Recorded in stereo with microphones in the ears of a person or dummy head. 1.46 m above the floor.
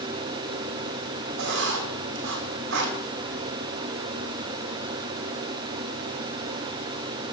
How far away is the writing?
About 3 m.